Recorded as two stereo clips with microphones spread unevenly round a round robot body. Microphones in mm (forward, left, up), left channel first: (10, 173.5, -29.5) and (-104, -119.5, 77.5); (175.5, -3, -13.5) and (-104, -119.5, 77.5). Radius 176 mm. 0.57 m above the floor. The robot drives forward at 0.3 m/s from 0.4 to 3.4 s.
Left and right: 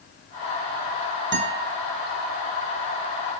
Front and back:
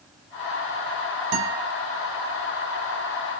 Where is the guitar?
170° right, 2.5 m.